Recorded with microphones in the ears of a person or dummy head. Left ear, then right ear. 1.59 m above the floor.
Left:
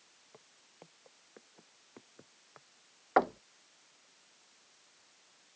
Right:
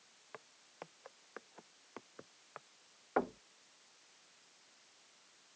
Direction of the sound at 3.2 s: 35° left (ahead or behind).